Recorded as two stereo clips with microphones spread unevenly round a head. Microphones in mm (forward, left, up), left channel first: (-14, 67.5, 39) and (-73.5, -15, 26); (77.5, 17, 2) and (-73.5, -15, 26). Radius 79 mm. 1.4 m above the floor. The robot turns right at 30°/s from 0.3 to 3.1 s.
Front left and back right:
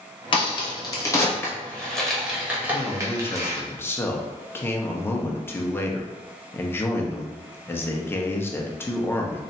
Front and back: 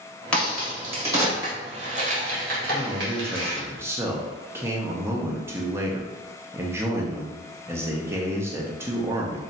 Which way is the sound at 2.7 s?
105° left.